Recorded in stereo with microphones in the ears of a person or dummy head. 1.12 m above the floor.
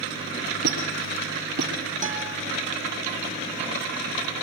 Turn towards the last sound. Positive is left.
turn(degrees=-35)  # may be behind; listen again after turning